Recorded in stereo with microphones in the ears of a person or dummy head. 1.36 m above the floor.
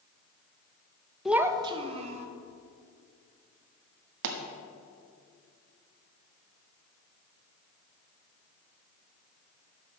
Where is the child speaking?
5° right (ahead or behind), 0.7 m; by 2.3 s 40° right (ahead or behind), 1.9 m.